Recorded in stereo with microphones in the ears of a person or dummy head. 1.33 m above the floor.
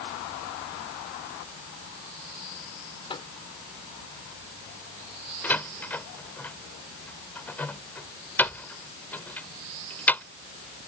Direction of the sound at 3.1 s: 20° left (ahead or behind).